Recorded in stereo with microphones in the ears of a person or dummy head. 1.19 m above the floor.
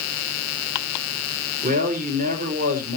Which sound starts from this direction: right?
A man speaking, at 1.6 s.